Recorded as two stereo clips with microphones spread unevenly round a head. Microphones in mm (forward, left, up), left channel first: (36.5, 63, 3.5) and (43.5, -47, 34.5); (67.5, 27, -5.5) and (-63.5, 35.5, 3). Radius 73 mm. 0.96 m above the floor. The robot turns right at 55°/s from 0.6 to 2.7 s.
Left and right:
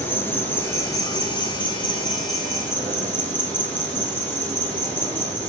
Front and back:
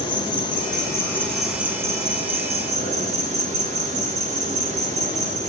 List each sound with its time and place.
0.0 s an insect: 40° left, 1.6 m; by 5.5 s 155° left, 1.6 m